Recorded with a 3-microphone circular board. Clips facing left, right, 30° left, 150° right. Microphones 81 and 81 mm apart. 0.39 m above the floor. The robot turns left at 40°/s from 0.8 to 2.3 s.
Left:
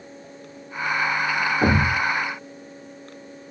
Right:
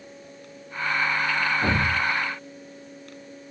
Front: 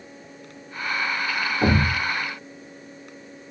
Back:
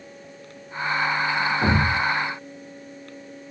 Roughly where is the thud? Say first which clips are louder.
Left 4 dB, front 3 dB; left.